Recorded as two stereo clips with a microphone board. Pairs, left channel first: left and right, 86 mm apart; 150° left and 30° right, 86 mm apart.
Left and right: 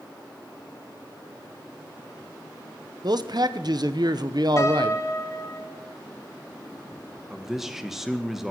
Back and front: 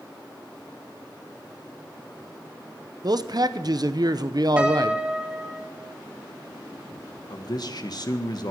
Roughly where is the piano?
Ahead left.